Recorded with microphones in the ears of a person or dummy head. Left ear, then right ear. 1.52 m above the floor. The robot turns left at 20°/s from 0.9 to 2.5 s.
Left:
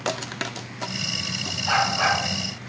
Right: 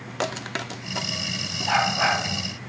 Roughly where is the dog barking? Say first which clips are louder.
Even; centre.